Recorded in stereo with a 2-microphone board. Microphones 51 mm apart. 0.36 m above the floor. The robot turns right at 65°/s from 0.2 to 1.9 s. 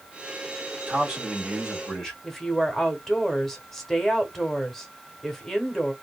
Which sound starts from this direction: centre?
A woman speaking, at 2.2 s.